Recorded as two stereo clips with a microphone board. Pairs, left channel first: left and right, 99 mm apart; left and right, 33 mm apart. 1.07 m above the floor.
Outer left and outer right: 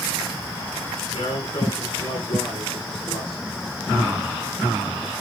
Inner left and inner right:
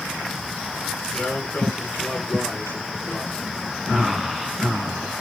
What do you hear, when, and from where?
1.1 s a man speaking: 65° left (ahead or behind), 8 m; by 3.4 s 60° left (ahead or behind), 10 m